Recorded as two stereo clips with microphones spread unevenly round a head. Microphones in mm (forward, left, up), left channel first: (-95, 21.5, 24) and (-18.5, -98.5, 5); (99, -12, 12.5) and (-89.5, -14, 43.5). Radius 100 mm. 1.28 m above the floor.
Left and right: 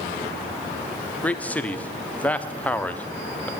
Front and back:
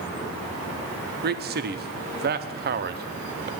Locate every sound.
1.2 s a man speaking: 155° right, 0.8 m